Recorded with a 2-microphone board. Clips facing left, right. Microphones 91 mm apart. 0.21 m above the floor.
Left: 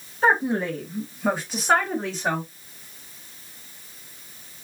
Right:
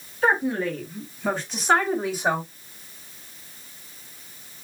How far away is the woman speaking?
About 1.9 m.